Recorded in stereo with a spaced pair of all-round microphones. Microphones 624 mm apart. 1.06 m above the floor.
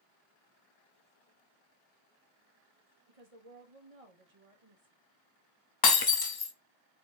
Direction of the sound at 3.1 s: 60° right (ahead or behind).